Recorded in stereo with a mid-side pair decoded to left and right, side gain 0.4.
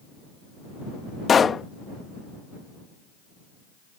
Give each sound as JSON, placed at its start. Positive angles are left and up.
{"t": 1.3, "sound": "a pop", "azimuth_deg": 45}